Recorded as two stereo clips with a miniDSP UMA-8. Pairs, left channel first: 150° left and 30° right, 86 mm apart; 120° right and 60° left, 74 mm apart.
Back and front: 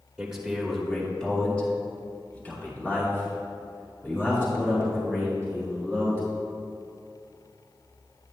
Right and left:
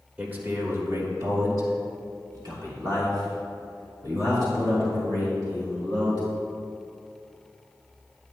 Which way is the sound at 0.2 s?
25° left.